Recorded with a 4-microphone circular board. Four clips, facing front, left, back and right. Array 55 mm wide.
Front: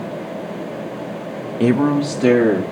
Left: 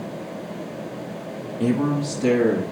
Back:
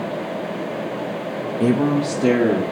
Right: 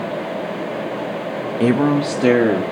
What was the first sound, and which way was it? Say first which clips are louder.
A man speaking: right 6 dB, front 3 dB; 60° right.